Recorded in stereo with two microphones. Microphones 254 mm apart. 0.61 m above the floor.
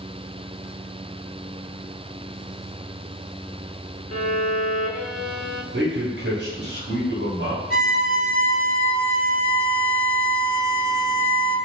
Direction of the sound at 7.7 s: 35° left (ahead or behind).